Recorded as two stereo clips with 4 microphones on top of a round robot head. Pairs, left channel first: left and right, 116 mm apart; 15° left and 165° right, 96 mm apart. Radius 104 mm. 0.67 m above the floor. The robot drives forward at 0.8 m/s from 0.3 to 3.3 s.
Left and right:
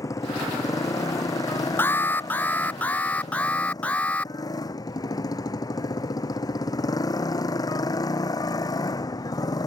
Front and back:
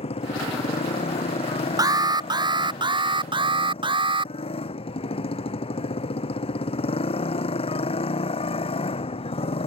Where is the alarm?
160° left; by 4.3 s 170° left.